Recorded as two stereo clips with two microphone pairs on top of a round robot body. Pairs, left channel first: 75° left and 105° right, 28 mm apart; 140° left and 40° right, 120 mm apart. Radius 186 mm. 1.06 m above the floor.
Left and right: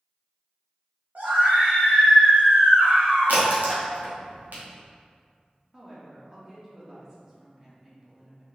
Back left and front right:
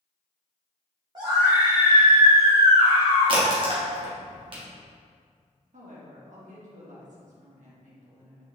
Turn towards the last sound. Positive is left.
turn(degrees=-40)